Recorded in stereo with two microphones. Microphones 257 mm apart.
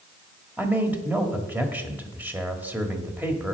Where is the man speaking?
5° right (ahead or behind), 1.5 m.